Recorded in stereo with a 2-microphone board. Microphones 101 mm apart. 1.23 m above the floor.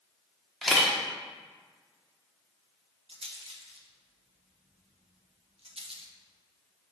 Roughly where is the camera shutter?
Centre.